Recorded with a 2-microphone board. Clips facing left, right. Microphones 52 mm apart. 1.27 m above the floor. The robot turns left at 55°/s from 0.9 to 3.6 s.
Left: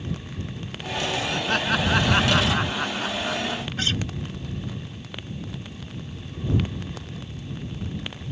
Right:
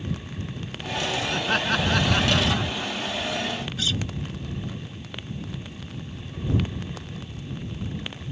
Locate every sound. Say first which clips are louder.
1.3 s laughter: even; 165° right; by 3.6 s 70° left
3.8 s a guitar: left 3 dB; 45° left (ahead or behind)